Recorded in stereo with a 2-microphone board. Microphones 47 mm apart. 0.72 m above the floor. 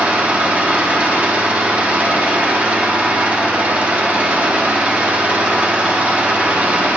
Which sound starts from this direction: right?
An engine running, at 0.0 s.